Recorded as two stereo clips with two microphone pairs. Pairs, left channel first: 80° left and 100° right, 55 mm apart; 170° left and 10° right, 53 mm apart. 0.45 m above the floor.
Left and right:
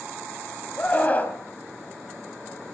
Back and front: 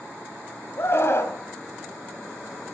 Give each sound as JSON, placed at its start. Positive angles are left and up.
{"t": 0.8, "sound": "a scream", "azimuth_deg": 140, "distance_m": 2.5}